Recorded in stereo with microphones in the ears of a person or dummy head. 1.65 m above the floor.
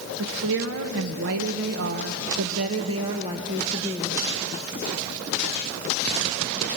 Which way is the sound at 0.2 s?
70° right (ahead or behind).